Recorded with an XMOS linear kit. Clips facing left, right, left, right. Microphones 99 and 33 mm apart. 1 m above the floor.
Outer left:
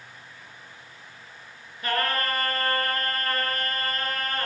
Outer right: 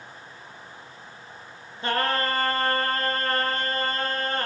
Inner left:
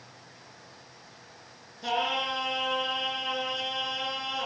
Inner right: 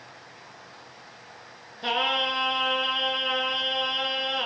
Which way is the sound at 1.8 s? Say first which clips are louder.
Outer right 2 dB, inner right 4 dB; 30° right (ahead or behind).